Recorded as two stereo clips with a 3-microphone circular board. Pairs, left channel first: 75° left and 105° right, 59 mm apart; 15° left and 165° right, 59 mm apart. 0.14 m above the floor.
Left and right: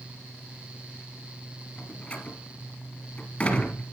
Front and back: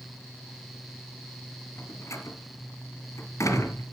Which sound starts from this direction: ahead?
A door slam, at 1.8 s.